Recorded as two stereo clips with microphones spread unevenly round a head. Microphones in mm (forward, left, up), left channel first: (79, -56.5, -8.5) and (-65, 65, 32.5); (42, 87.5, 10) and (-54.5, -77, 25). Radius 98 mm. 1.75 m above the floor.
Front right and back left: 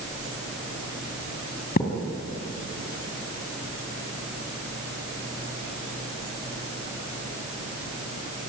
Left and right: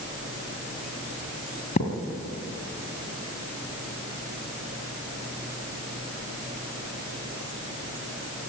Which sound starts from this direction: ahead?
A thud, at 1.8 s.